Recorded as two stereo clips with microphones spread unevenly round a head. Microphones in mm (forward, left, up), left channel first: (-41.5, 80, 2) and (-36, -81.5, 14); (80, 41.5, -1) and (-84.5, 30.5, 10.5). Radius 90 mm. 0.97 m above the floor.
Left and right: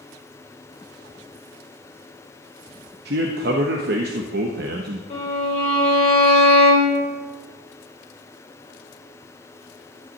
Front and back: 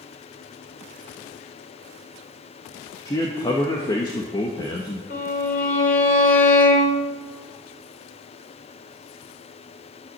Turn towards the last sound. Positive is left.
turn(degrees=35)